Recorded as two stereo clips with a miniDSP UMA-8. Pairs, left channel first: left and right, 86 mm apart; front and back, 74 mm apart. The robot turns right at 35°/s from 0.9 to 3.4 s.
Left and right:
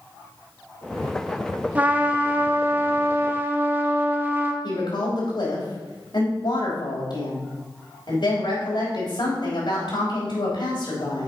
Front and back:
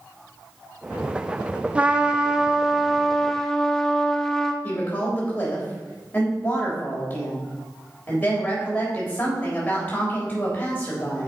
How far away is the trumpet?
About 0.7 m.